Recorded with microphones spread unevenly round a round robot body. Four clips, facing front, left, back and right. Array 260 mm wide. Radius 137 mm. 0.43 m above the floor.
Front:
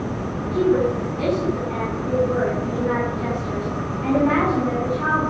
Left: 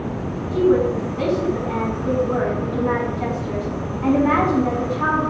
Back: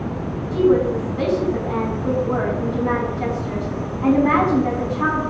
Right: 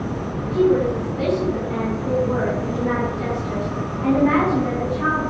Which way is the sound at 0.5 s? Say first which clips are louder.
Left 1 dB, back 2 dB; 170° left.